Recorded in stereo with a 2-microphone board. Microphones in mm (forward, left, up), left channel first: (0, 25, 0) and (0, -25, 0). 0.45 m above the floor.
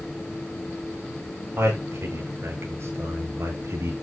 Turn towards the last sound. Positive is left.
turn(degrees=-70)  # may be behind; listen again after turning